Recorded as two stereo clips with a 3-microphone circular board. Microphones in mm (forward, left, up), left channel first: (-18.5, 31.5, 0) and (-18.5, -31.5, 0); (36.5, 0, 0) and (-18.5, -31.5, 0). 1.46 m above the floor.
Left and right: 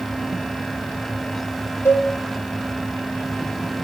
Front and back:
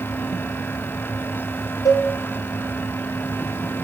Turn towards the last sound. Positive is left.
turn(degrees=40)